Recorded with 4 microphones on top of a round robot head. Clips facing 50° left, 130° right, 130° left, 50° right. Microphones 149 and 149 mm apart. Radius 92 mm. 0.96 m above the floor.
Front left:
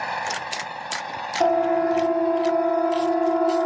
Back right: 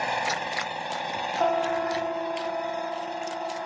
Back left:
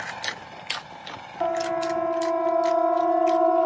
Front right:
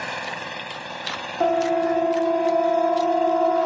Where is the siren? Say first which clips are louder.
Front left 6 dB, front right 5 dB; 5° right; by 3.7 s 45° left.